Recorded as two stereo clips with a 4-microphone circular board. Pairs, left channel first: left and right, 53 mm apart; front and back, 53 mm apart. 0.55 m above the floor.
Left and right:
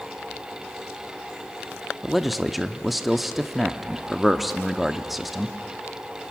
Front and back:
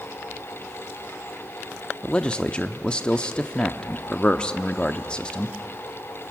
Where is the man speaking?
10° right, 0.6 m.